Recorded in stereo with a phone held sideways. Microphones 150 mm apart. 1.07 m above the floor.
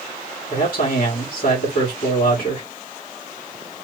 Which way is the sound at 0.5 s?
65° left (ahead or behind).